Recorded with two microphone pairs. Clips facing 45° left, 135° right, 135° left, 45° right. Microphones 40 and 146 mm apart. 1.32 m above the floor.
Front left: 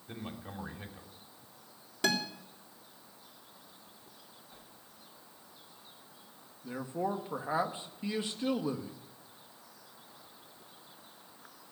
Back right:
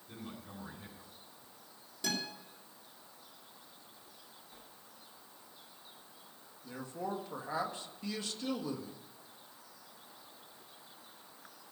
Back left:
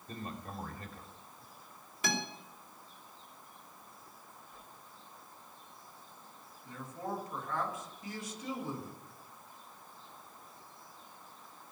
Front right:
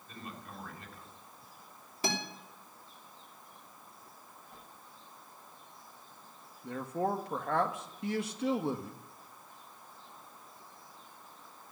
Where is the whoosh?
35° right, 7.5 m.